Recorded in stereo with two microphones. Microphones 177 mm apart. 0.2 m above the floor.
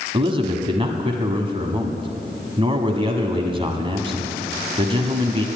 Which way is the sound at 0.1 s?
30° right (ahead or behind).